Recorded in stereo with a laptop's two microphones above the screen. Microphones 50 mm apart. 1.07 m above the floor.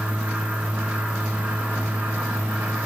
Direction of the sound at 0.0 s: 25° right (ahead or behind).